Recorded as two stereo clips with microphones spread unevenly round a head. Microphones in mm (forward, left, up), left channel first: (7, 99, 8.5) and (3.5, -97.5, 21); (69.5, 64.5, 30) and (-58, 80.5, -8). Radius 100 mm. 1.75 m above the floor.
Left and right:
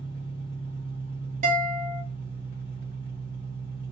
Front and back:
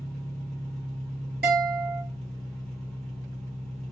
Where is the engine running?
45° left, 1.1 m.